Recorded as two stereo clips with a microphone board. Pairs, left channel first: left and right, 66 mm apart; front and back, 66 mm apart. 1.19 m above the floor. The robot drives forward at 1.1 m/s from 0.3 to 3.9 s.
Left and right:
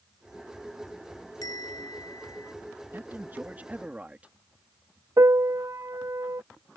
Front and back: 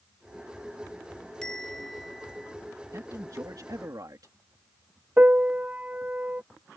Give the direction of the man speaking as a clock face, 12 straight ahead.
5 o'clock.